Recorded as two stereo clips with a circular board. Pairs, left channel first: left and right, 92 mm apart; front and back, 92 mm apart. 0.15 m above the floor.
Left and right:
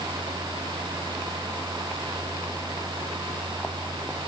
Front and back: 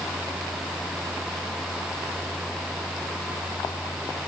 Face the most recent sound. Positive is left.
No sound to turn to.